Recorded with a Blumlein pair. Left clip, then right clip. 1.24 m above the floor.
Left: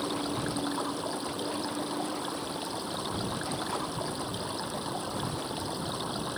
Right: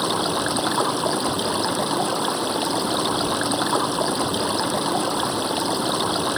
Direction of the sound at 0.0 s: 60° right.